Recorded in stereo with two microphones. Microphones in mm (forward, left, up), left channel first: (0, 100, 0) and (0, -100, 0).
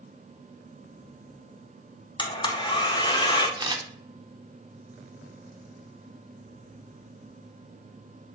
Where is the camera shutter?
20° right (ahead or behind), 0.5 m.